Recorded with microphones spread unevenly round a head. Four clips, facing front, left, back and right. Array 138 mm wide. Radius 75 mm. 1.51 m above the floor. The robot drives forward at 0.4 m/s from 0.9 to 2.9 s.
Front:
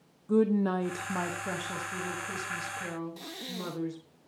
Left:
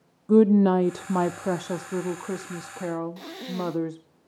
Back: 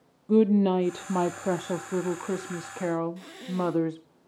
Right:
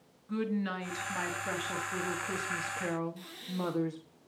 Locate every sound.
0.3 s a woman speaking: 115° left, 0.6 m; by 4.0 s 150° left, 1.2 m
3.2 s breathing: 80° left, 0.8 m